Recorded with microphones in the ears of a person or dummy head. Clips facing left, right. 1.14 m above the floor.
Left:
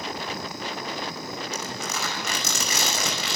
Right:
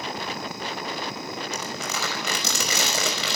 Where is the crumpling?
65° right (ahead or behind), 5.5 m.